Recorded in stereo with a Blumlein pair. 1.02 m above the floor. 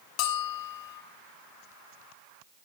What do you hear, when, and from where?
0.2 s a bell: 40° left, 1.5 m